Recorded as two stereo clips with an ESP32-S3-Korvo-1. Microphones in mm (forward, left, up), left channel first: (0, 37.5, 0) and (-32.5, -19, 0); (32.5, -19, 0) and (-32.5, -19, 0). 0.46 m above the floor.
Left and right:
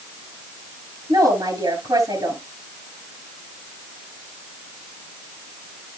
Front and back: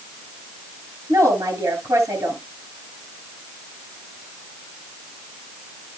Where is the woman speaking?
135° right, 7 m.